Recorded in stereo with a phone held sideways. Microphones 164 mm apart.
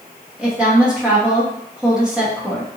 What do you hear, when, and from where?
0.4 s a woman speaking: 5° right (ahead or behind), 1.1 m